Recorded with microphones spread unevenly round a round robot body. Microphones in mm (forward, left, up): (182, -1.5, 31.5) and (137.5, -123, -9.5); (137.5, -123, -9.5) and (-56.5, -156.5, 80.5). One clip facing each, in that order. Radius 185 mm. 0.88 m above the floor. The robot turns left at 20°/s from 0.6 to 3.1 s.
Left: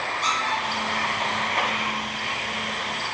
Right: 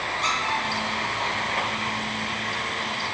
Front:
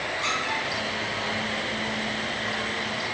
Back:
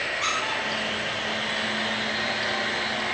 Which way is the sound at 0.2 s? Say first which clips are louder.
Left 1 dB, even; 150° left.